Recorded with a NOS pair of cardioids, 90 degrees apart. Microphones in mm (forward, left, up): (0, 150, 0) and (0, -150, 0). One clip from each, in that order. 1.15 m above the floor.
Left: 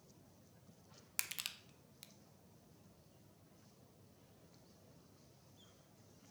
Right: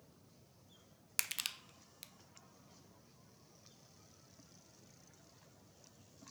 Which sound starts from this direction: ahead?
Crushing, at 1.2 s.